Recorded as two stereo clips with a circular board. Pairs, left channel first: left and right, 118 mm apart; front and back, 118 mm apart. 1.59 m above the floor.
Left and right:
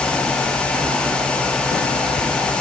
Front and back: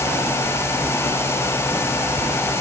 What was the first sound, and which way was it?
Only background noise.